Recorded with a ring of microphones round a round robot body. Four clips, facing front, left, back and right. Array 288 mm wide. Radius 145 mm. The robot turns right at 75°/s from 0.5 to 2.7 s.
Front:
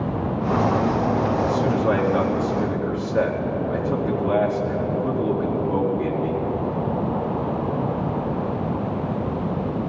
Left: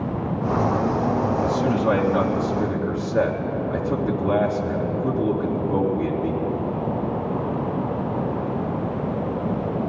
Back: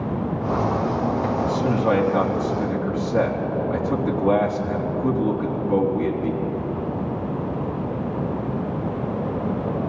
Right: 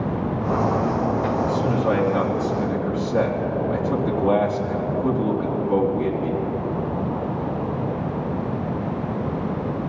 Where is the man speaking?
140° left, 4 m; by 6.3 s 125° right, 4 m.